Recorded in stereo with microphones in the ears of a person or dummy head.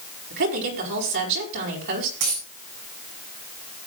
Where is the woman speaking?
60° right (ahead or behind), 4.5 m.